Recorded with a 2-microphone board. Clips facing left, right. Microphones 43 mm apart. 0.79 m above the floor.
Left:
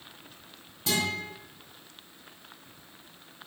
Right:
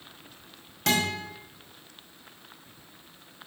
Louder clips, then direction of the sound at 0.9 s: Right 3 dB; 80° right.